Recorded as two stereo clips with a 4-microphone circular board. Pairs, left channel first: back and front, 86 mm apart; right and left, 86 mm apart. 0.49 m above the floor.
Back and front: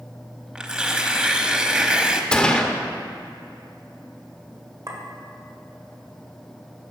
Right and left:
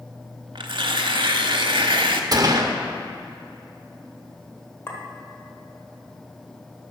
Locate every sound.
0.6 s tearing paper: 80° left, 0.7 m
2.3 s a gunshot: 105° left, 0.8 m
4.9 s a clink: 35° right, 1.4 m